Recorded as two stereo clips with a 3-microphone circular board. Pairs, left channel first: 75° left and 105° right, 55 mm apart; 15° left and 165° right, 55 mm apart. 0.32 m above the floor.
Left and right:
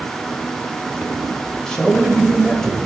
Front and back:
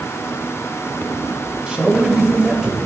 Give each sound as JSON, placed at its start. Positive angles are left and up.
{"t": 1.7, "sound": "a man speaking", "azimuth_deg": 135, "distance_m": 1.6}